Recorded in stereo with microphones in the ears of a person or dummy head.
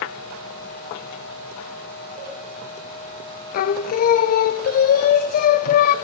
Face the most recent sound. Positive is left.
turn(degrees=50)  # may be behind; listen again after turning